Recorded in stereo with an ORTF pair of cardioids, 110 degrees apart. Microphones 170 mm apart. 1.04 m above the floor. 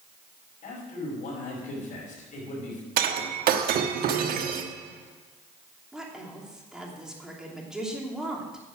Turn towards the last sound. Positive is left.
turn(degrees=-5)